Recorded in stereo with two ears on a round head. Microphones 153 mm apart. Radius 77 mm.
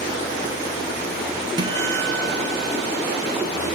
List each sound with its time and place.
1.6 s a guitar: 25° right (ahead or behind), 2.5 m